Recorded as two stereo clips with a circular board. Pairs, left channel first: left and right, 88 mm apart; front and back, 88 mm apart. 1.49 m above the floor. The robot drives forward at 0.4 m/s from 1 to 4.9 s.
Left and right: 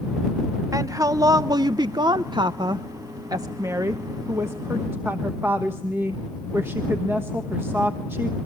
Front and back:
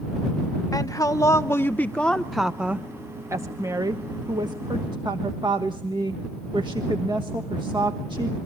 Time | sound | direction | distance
0.7 | a woman speaking | 45° right | 0.8 m